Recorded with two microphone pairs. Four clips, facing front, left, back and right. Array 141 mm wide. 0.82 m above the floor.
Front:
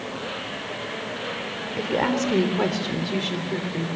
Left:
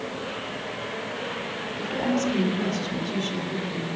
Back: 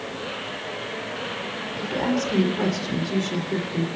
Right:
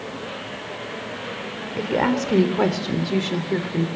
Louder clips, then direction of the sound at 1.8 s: Right 5 dB, front 2 dB; 60° right.